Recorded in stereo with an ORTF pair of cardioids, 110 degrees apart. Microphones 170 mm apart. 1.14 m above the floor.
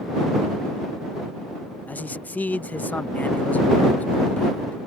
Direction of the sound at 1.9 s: 10° left.